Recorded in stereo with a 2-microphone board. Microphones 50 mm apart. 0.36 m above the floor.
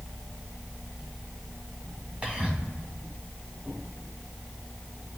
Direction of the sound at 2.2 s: 25° right (ahead or behind).